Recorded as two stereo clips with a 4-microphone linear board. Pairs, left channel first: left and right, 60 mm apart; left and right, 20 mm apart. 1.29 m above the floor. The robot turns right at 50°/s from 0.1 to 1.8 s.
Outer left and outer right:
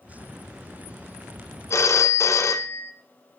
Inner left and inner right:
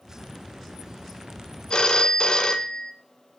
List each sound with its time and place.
1.7 s a phone ringing: 45° left (ahead or behind), 0.6 m; by 2.9 s 50° left (ahead or behind), 0.6 m